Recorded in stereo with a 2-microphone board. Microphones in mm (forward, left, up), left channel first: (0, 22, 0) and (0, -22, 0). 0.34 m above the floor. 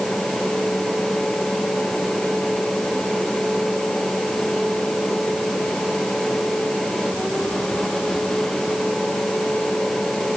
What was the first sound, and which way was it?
Only background noise.